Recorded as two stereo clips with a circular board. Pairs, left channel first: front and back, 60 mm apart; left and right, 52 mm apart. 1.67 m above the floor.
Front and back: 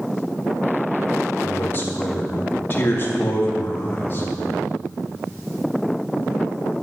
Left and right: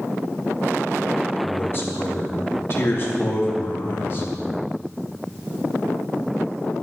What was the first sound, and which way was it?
A man speaking, 50° left.